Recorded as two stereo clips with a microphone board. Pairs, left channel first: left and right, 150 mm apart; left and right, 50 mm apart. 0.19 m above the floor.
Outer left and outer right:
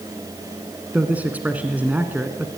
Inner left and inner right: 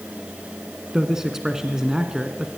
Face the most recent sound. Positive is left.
turn(degrees=-10)  # may be behind; listen again after turning